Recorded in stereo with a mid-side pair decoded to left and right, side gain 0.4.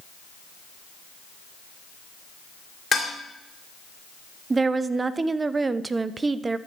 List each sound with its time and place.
2.9 s dishes clattering: 40° left, 2.5 m
4.5 s a woman speaking: 35° right, 0.5 m